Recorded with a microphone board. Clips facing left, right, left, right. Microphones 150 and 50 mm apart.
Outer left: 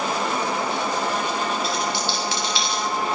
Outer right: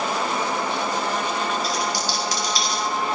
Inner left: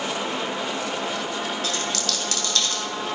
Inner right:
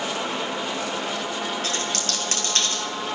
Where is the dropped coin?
45° right (ahead or behind), 3 m.